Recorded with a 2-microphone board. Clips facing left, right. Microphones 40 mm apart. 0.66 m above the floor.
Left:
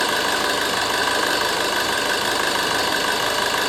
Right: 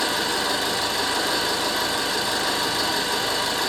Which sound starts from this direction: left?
An engine running, at 0.0 s.